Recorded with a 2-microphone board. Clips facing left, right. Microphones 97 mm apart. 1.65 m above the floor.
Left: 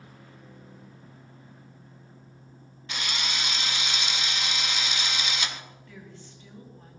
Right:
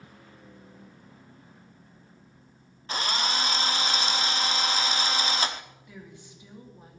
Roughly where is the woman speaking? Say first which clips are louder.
Even; centre.